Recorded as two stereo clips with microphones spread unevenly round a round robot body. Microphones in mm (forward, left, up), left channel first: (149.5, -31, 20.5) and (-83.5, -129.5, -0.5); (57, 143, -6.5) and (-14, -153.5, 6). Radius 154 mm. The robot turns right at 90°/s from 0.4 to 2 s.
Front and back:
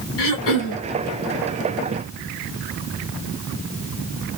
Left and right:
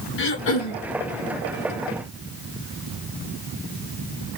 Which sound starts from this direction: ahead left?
Throat clearing, at 0.2 s.